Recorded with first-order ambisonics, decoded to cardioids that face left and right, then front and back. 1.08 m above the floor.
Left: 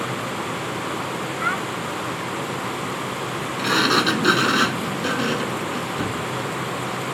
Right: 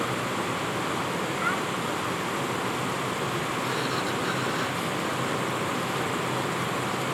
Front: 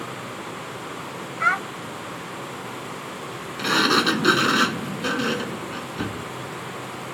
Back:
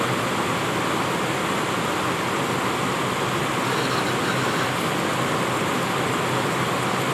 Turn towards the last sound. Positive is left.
turn(degrees=55)